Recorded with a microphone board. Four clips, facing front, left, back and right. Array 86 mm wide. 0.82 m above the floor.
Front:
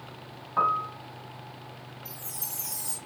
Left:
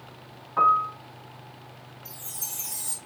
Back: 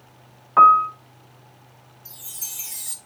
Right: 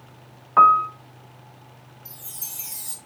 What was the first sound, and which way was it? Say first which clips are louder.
A piano: right 6 dB, back 13 dB; 135° right.